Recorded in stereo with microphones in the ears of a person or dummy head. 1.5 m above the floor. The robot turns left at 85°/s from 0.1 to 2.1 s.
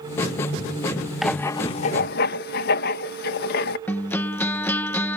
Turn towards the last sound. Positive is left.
turn(degrees=15)  # may be behind; listen again after turning